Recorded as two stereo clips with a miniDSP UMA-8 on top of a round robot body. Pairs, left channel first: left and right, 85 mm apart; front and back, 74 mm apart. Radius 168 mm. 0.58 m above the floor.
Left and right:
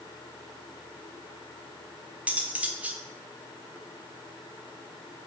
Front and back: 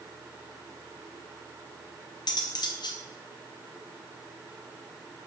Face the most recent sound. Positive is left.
turn(degrees=-15)